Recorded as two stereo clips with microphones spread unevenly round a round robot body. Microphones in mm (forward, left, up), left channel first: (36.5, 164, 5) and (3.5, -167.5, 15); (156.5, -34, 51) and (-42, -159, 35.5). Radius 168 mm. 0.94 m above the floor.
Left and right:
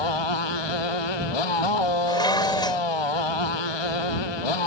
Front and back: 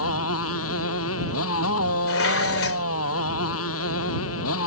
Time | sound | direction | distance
0.0 | a motorcycle | 80° left | ?
2.1 | dishes clattering | 5° left | ?